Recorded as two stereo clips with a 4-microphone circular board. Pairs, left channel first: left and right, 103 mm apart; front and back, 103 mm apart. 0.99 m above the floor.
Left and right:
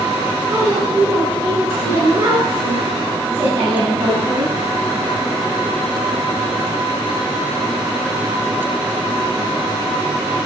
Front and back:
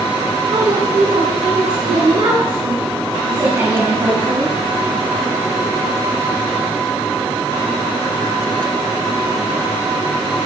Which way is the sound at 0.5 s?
155° right.